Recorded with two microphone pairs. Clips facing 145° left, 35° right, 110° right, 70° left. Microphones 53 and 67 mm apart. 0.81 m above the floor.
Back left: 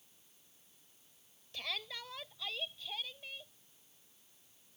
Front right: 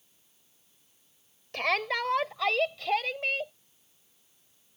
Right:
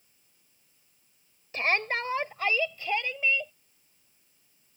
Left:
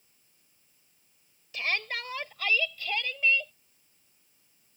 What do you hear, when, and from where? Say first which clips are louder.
1.5 s a shout: front right 15 dB, right 5 dB; 60° right; by 3.5 s 35° right